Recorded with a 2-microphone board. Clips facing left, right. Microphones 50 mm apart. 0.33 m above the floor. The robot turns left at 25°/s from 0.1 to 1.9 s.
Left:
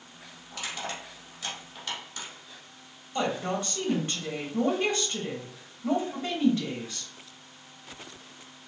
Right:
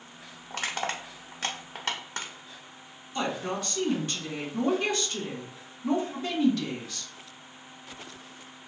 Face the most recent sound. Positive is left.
turn(degrees=30)  # may be behind; listen again after turning